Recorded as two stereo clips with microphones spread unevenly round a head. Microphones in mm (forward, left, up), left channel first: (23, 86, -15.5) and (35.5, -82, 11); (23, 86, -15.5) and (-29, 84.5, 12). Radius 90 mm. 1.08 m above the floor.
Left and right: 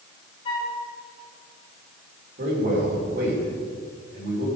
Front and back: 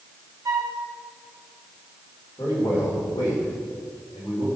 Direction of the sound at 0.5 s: 160° left.